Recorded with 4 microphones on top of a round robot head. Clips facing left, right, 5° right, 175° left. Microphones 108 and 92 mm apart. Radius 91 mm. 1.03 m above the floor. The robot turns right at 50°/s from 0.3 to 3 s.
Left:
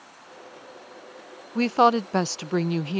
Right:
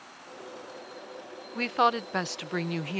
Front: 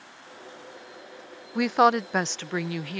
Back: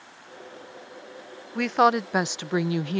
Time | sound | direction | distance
1.6 | a woman speaking | 70° left | ?